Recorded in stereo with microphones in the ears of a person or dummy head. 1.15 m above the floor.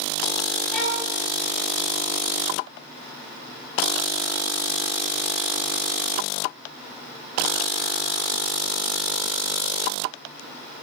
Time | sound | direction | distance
0.7 | a violin | 10° left (ahead or behind) | 2 m